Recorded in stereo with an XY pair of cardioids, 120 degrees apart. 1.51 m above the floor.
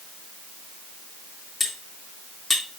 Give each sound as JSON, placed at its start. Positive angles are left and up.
{"t": 1.6, "sound": "cutlery clinking", "azimuth_deg": 15, "distance_m": 2.0}